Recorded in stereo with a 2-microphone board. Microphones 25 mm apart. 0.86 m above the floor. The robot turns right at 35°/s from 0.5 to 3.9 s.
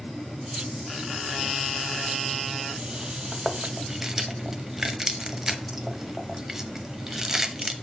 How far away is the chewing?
About 0.7 m.